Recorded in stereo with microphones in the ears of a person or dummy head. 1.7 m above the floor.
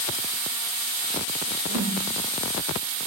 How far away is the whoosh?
About 0.5 m.